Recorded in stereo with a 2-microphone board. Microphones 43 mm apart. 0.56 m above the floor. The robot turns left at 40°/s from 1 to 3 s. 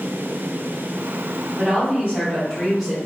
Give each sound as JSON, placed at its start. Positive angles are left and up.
{"t": 1.6, "sound": "a woman speaking", "azimuth_deg": -125, "distance_m": 1.7}